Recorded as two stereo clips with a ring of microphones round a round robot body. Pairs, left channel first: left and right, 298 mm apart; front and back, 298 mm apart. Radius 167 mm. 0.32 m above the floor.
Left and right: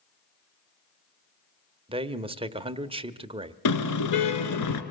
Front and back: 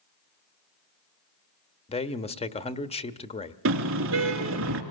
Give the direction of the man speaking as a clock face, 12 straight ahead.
1 o'clock.